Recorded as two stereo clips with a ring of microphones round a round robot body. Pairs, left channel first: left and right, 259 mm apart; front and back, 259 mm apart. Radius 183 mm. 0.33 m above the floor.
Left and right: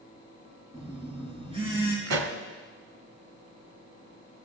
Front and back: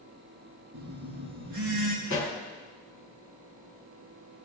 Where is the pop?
70° right, 1.4 m.